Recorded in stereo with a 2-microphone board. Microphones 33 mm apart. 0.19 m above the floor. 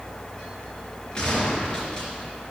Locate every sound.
1.1 s a gunshot: 20° left (ahead or behind), 3.5 m